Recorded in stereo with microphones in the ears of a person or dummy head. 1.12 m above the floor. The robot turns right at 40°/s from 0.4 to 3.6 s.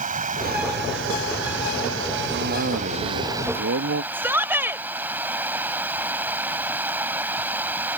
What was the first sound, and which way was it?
Running water, 140° right.